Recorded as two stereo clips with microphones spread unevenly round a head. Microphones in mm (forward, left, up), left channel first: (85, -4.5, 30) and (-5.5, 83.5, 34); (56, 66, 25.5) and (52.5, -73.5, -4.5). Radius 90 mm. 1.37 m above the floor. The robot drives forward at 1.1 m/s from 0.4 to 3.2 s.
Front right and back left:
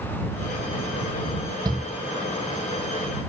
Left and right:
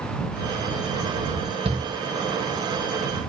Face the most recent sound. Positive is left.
turn(degrees=-170)